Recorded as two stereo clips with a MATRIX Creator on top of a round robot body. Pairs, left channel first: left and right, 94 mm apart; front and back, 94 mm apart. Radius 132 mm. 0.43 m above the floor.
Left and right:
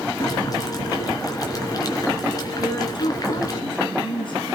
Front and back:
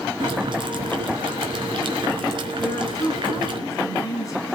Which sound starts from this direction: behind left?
Boiling, at 0.2 s.